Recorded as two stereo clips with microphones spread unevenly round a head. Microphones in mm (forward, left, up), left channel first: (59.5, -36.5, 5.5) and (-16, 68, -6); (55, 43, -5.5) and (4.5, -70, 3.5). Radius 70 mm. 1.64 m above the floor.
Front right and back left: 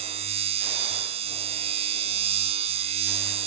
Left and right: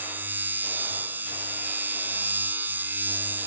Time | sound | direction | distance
0.0 | a machine running | 175° left | ?